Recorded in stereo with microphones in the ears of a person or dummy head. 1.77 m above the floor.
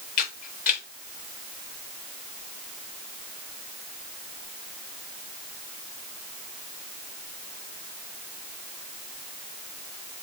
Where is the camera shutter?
45° left (ahead or behind), 3 m.